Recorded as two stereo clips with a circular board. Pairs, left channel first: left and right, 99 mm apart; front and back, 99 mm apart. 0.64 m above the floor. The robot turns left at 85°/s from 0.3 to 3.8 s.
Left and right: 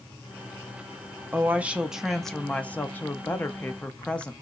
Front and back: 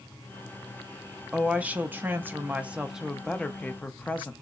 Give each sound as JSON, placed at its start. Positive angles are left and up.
{"t": 1.3, "sound": "a woman speaking", "azimuth_deg": -110, "distance_m": 0.5}